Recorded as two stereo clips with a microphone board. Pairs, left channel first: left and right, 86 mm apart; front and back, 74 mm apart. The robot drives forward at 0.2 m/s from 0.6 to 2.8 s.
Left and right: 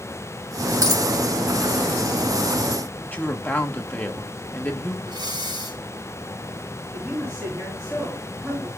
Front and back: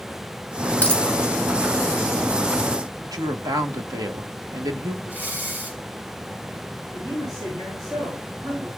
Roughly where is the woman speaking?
Behind.